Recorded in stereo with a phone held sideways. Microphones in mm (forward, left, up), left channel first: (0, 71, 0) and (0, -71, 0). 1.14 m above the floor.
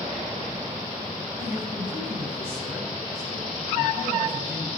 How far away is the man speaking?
About 7.5 m.